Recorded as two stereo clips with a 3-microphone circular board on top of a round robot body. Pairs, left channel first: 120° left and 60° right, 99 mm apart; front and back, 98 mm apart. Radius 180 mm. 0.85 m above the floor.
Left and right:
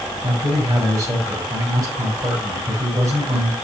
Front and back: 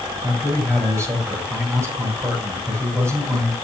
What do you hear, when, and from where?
0.2 s a man speaking: 115° right, 6 m